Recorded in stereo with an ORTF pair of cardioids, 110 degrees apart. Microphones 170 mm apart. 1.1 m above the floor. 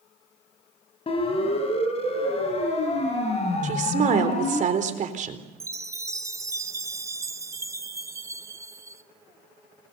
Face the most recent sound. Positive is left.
turn(degrees=-15)